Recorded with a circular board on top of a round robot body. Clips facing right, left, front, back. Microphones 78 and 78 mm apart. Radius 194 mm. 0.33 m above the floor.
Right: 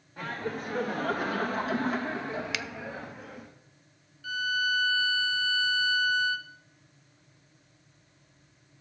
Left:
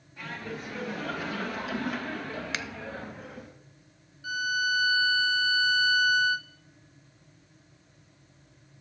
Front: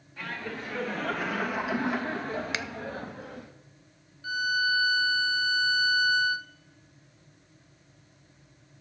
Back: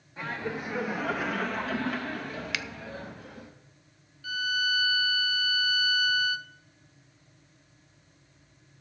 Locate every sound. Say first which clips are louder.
0.2 s laughter: right 4 dB, back 3 dB; 120° right, 2.5 m; by 3.5 s straight ahead, 2.5 m
2.5 s a finger snap: left 1 dB, front 2 dB; 50° left, 0.7 m
4.2 s a violin: left 1 dB, front 3 dB; 30° left, 0.9 m